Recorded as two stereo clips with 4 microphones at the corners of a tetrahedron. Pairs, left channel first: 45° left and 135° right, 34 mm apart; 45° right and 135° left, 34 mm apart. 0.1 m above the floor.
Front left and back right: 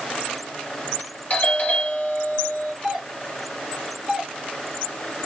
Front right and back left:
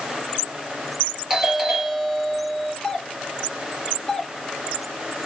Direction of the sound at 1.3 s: 65° left.